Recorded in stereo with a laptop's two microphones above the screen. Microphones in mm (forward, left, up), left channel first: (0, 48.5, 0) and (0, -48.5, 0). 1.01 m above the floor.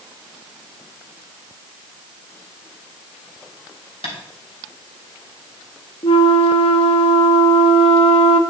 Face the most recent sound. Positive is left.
turn(degrees=80)